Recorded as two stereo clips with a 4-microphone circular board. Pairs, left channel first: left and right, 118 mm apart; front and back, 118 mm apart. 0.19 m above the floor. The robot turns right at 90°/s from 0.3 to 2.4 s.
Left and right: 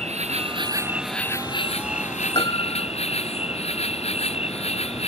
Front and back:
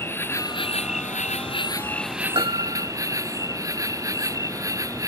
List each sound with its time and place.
0.0 s an insect: 70° right; by 5.1 s 120° left
2.4 s a piano: 135° left; by 2.9 s 140° left